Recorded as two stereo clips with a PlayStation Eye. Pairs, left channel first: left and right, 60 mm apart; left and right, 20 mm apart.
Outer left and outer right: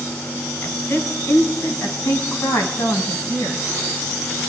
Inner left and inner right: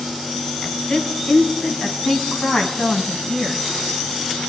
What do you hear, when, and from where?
0.6 s a woman speaking: 40° left (ahead or behind), 3.5 m; by 3.6 s 70° left (ahead or behind), 4 m